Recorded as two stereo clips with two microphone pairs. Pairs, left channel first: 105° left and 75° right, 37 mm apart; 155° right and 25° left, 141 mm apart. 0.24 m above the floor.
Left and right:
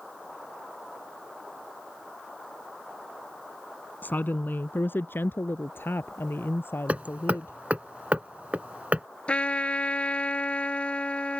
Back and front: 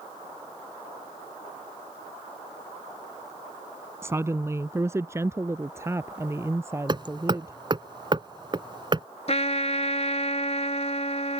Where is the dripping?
I don't hear dripping.